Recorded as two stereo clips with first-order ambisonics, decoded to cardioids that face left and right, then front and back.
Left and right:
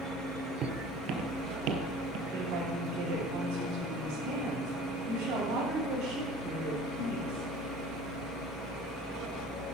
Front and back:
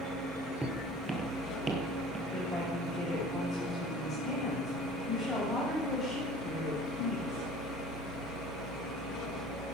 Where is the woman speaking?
85° right, 7.5 m.